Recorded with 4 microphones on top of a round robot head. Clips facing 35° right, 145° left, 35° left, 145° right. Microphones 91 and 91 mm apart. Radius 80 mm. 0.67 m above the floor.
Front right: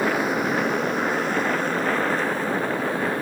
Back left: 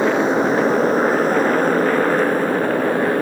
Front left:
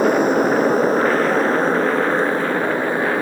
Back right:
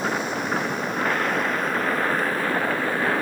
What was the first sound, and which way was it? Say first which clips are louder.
A motorcycle: back left 6 dB, front left 11 dB; 80° left.